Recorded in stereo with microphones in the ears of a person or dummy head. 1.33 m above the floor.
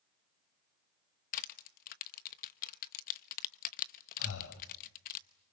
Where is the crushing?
45° left (ahead or behind), 0.9 m.